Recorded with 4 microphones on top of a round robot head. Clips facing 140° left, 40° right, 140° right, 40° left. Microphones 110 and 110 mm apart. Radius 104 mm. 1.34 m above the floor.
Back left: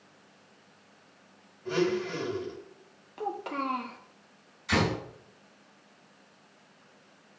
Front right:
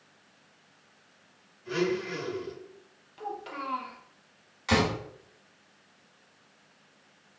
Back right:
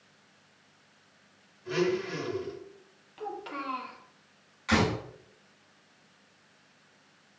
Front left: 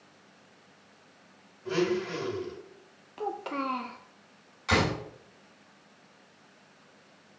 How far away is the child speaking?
About 0.9 m.